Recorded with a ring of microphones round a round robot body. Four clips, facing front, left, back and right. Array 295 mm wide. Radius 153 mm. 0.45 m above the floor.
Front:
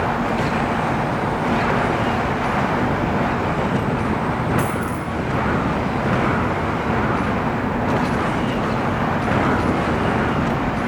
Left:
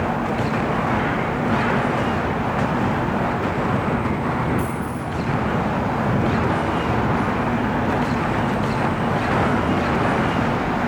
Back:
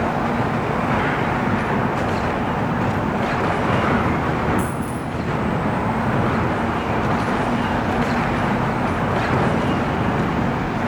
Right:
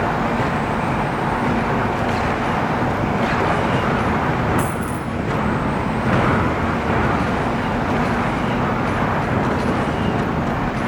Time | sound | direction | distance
4.6 | a dropped coin | 75° right | 2 m